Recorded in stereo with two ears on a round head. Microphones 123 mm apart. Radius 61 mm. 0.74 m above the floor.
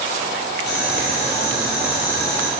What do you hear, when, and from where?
0.7 s boiling: 85° left, 3.5 m